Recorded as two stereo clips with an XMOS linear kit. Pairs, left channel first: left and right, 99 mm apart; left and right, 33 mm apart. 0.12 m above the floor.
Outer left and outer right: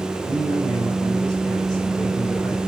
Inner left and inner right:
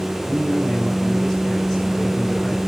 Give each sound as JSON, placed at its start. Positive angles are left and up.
{"t": 0.3, "sound": "a man speaking", "side_deg": 5, "distance_m": 5.5}